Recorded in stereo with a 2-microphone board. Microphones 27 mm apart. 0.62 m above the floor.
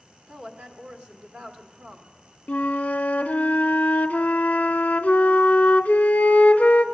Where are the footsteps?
No footsteps in this recording.